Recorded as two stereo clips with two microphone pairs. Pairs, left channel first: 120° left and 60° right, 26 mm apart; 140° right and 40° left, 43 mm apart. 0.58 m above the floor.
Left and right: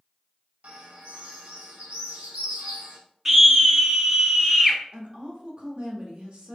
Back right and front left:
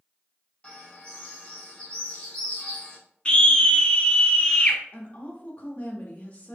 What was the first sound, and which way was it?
A bird, 75° right.